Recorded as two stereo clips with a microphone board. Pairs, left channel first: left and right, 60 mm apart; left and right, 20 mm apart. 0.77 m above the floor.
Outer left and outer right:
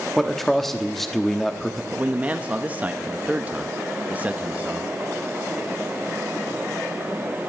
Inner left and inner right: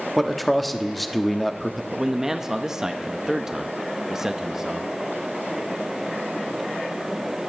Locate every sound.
0.2 s a man speaking: 5° left (ahead or behind), 1.1 m
1.9 s a man speaking: 25° right (ahead or behind), 0.7 m